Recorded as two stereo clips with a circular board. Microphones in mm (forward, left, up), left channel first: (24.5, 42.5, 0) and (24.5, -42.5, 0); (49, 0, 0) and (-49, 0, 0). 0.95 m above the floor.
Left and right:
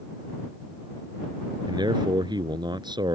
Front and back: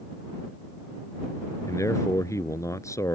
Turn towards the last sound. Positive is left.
turn(degrees=-60)